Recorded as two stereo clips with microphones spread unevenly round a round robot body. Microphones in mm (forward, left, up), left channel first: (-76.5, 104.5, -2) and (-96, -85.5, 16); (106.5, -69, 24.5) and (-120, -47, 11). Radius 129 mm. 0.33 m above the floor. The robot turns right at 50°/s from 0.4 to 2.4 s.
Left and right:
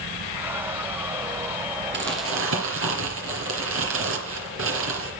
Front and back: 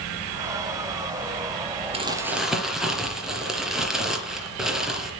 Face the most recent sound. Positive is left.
turn(degrees=-100)